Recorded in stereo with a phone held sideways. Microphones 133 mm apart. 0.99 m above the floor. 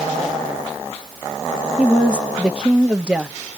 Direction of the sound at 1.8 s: 10° right (ahead or behind).